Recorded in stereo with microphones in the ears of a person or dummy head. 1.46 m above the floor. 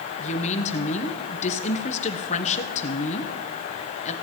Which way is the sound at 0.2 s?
35° left (ahead or behind).